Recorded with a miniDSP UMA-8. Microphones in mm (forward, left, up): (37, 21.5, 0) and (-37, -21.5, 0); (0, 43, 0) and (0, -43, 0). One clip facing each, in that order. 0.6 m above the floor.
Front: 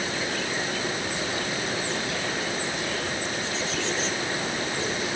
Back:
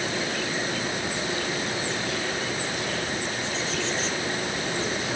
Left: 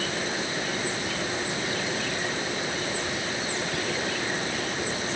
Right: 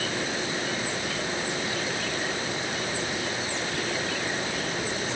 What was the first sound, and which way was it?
Only background noise.